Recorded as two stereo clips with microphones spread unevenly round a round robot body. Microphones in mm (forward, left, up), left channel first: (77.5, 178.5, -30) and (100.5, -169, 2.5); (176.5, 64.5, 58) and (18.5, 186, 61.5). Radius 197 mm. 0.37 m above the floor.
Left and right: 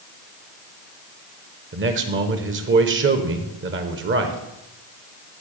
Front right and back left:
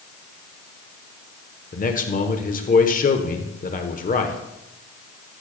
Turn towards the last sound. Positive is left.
turn(degrees=-40)